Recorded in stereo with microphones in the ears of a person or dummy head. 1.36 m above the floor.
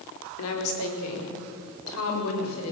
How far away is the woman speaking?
About 4 m.